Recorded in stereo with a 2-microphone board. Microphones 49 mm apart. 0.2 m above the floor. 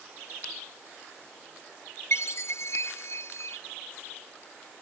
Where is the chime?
60° left (ahead or behind).